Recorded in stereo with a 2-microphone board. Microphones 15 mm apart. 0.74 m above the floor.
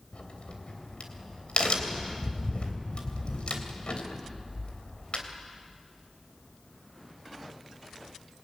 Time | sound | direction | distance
0.1 | a crack | 75° left (ahead or behind) | 3 m